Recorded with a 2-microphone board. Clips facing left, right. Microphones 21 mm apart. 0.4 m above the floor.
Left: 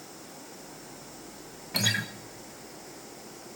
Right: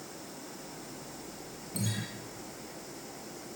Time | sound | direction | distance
1.7 | a guitar | 75° left (ahead or behind) | 1.1 m